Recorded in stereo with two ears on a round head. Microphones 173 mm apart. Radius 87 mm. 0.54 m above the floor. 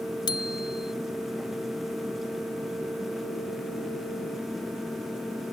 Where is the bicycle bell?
25° left (ahead or behind).